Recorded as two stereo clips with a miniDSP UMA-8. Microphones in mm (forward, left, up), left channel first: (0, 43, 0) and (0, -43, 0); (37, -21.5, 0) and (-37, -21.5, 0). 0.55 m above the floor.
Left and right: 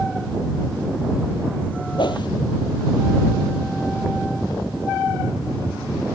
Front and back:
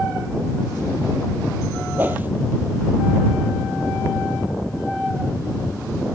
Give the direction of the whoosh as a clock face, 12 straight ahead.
8 o'clock.